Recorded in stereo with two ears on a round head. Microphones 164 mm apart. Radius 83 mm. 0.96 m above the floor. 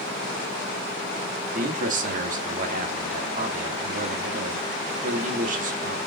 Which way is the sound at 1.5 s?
45° right (ahead or behind).